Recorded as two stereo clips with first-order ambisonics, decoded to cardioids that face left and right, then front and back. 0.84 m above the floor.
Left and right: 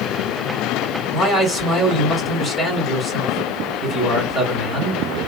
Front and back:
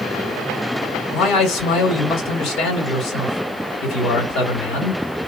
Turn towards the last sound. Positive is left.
turn(degrees=0)